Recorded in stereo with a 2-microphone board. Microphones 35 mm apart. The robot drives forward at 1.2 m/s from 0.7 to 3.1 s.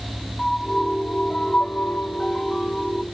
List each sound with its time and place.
0.4 s a piano: 15° left (ahead or behind)